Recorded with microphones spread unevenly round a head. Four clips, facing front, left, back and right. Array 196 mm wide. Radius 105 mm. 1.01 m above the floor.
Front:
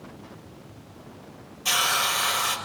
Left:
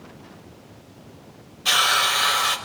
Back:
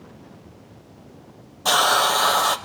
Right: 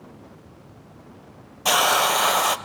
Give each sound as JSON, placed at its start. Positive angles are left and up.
{"t": 1.6, "sound": "a hiss", "azimuth_deg": -135, "distance_m": 0.5}